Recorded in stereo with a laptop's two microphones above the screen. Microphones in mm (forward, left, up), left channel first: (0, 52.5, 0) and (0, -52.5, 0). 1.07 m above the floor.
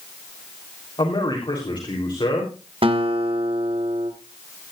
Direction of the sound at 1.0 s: 50° left (ahead or behind).